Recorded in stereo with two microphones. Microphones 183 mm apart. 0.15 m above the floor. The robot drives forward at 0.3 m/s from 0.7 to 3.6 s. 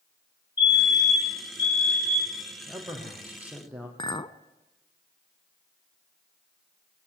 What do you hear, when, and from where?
0.6 s a fire alarm: 10° right (ahead or behind), 5.5 m
2.7 s a man speaking: 5° right (ahead or behind), 5.5 m
4.0 s a clink: 25° left (ahead or behind), 0.6 m